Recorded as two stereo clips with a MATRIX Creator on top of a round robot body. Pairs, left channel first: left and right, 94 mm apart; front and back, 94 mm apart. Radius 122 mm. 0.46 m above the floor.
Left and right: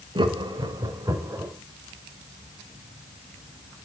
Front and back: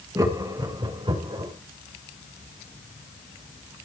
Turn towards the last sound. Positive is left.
turn(degrees=-155)